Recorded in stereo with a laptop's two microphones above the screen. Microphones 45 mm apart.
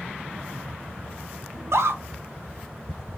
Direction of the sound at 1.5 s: 80° right.